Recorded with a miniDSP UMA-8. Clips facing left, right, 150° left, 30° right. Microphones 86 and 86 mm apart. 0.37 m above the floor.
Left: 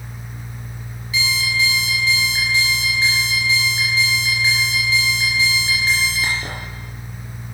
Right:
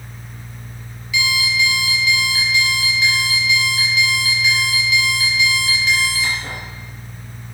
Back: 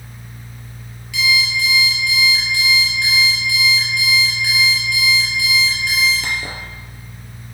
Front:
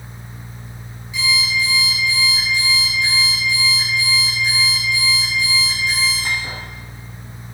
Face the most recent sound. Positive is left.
turn(degrees=145)